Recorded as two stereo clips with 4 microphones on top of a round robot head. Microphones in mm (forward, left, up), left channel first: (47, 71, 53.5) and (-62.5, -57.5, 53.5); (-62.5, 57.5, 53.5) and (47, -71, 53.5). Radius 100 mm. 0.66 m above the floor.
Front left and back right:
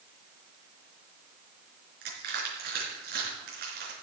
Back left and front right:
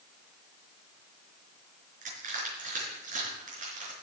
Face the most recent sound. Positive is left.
turn(degrees=-95)